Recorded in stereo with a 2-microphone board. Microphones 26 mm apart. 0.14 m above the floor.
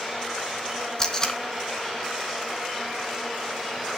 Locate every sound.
1.0 s tape being pulled: 30° left (ahead or behind), 1.6 m